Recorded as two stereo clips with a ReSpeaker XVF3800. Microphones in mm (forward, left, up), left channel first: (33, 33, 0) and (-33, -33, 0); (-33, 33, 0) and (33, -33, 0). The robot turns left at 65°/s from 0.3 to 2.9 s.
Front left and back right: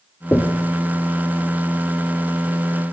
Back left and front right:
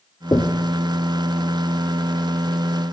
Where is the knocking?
100° left, 1.0 m; by 0.7 s 75° left, 1.0 m.